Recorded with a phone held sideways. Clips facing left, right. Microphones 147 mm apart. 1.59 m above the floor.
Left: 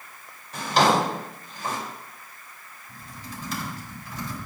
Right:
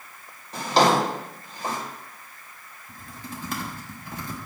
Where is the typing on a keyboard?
55° right (ahead or behind), 1.2 m.